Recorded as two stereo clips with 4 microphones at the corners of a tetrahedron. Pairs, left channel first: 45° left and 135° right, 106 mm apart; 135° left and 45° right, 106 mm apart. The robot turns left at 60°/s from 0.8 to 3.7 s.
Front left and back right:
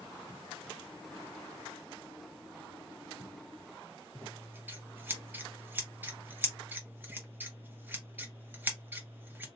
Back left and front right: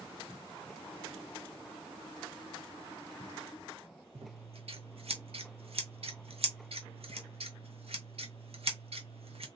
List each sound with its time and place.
4.2 s scissors: 65° right, 0.8 m